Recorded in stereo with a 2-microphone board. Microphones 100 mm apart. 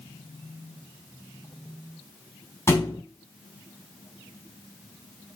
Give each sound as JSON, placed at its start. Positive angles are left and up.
{"t": 2.7, "sound": "a thud", "side_deg": 25, "distance_m": 3.5}